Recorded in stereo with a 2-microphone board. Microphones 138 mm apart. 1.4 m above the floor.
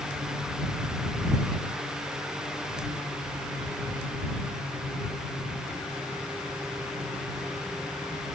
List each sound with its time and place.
Only background noise.